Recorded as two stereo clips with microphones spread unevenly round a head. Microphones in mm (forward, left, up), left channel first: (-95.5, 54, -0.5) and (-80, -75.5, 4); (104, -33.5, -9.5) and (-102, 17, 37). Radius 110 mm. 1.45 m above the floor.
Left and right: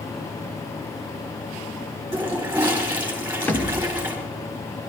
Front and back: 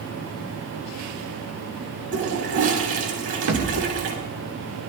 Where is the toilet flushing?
160° right, 4 m.